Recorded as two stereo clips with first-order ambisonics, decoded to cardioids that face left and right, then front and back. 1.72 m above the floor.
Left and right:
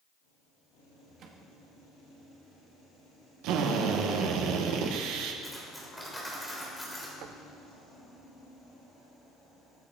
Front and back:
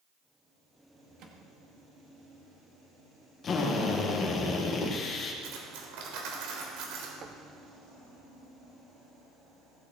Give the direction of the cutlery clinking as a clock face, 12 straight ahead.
6 o'clock.